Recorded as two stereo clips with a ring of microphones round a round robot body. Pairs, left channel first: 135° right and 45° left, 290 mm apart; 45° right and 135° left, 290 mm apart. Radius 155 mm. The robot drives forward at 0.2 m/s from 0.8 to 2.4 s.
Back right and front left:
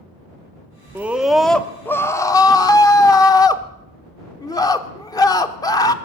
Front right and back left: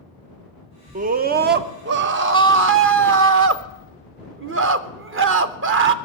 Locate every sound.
0.9 s a scream: 120° left, 0.6 m; by 5.9 s 150° left, 0.7 m